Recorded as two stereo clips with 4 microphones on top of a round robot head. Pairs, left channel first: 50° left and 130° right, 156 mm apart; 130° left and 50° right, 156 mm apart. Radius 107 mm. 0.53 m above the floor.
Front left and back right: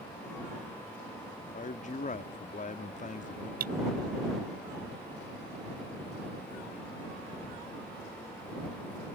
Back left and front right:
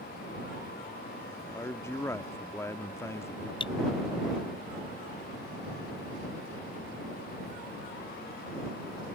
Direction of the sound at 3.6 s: 165° right.